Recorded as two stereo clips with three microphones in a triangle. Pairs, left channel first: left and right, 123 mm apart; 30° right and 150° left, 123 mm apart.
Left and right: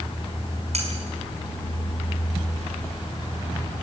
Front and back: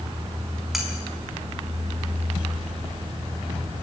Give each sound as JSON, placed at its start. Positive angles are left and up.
{"t": 0.7, "sound": "cutlery clinking", "azimuth_deg": -120, "distance_m": 5.0}